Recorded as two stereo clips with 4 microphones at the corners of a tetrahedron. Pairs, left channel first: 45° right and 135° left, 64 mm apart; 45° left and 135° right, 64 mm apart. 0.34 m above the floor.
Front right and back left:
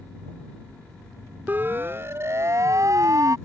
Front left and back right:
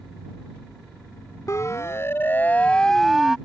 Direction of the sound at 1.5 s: 80° left.